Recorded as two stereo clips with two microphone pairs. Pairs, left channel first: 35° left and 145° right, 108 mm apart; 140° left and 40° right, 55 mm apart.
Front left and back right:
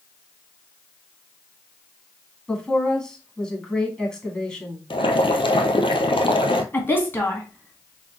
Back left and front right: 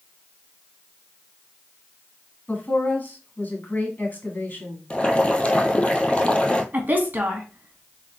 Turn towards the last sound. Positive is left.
turn(degrees=-15)